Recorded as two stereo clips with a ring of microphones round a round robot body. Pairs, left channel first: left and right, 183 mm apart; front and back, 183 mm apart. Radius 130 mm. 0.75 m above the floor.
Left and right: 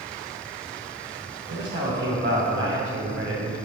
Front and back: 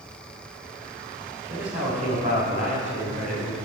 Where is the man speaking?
120° right, 2.5 m.